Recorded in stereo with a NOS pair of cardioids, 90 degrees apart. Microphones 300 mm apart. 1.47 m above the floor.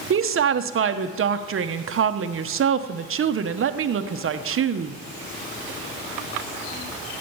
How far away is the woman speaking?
About 1.0 m.